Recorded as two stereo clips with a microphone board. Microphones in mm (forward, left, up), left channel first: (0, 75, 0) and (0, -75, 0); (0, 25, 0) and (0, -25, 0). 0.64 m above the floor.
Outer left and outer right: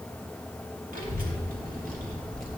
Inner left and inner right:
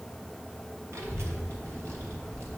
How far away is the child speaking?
About 1.8 m.